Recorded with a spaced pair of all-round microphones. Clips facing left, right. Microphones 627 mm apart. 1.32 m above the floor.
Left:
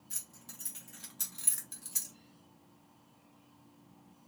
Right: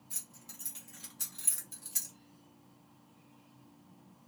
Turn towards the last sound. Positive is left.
turn(degrees=0)  # may be behind; listen again after turning